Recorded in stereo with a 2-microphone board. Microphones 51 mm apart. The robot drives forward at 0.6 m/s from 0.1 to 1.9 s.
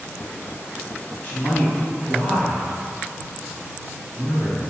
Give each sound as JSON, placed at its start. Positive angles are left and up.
{"t": 1.2, "sound": "a man speaking", "side_deg": 20, "distance_m": 1.3}